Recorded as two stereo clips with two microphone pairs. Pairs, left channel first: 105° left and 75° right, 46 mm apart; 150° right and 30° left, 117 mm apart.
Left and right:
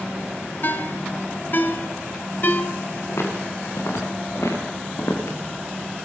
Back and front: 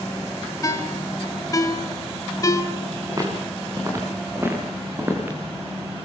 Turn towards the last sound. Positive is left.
turn(degrees=105)